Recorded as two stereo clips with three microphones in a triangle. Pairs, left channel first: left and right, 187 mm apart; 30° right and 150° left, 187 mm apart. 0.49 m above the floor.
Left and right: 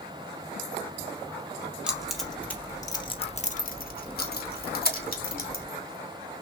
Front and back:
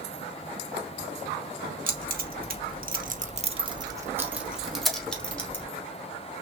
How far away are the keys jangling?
About 1.3 m.